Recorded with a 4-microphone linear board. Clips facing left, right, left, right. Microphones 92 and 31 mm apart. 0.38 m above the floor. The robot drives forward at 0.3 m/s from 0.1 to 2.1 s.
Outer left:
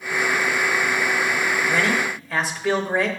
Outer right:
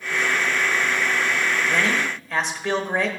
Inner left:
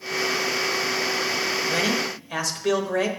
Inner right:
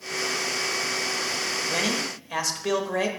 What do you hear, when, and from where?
1.7 s a man speaking: 5° left (ahead or behind), 1.1 m